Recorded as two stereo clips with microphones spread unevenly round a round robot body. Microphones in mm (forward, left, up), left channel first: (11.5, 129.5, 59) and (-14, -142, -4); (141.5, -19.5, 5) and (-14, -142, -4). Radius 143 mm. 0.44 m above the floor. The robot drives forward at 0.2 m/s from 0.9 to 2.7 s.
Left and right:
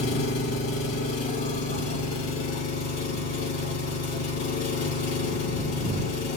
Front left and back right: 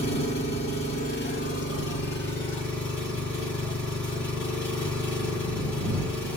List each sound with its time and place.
0.0 s an engine running: 110° left, 1.3 m; by 6.4 s 120° left, 1.5 m